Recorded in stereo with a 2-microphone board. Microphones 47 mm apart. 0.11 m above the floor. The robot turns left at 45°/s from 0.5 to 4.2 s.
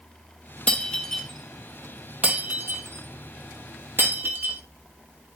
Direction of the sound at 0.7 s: 30° left (ahead or behind).